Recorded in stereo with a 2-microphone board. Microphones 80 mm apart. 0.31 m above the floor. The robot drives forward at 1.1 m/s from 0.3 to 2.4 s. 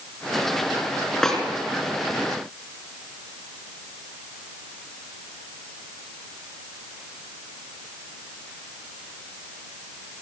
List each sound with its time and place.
1.2 s a snare drum: 5° left (ahead or behind), 5 m